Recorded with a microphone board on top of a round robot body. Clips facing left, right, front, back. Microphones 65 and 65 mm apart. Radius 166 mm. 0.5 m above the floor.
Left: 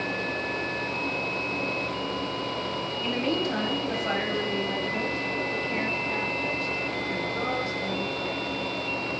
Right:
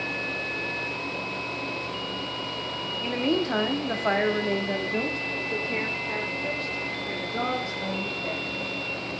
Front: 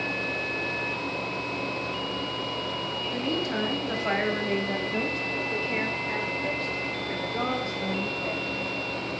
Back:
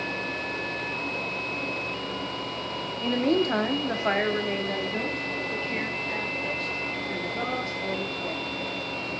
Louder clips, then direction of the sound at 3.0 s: Right 3 dB, back 8 dB; 160° right.